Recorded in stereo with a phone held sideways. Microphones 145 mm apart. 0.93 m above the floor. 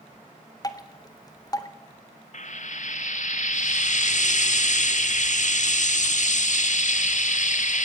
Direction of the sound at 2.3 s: 60° left (ahead or behind).